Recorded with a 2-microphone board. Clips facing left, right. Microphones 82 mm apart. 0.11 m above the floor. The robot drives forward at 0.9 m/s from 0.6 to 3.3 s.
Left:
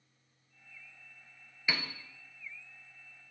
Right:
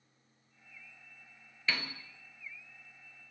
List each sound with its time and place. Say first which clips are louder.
1.7 s a piano: even; 15° left (ahead or behind), 0.9 m; by 1.9 s 10° left (ahead or behind), 1.1 m